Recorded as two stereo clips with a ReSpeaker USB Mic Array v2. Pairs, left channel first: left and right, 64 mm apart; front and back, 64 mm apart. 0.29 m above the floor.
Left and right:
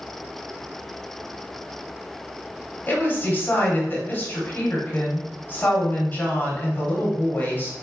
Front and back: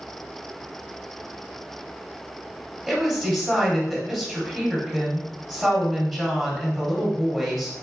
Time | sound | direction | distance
2.9 | a woman speaking | 90° left | 1.2 m